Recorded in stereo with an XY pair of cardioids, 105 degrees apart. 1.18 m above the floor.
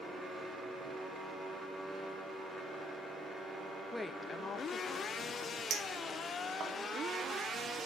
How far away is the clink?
About 2.5 m.